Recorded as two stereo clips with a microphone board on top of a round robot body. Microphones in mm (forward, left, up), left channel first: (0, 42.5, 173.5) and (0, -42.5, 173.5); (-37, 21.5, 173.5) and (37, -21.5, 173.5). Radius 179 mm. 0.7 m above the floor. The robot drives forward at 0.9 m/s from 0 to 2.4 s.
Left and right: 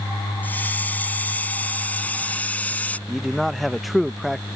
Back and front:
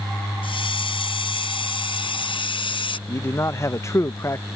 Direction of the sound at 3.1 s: Straight behind.